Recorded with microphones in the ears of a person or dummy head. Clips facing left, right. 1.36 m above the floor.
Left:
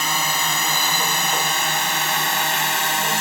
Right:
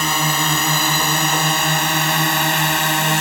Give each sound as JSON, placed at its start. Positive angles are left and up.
{"t": 0.0, "sound": "a drone", "side_deg": -55}